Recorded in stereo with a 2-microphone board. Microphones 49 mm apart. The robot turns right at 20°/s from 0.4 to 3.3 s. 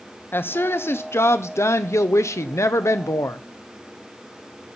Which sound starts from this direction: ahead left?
A woman speaking, at 0.3 s.